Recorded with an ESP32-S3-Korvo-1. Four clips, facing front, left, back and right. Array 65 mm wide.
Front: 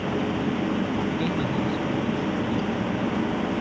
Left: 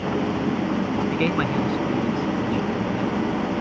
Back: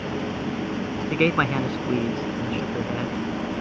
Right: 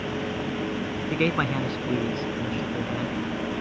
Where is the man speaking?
175° right.